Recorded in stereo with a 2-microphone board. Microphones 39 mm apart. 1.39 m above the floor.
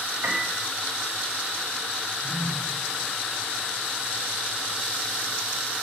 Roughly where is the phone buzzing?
Left.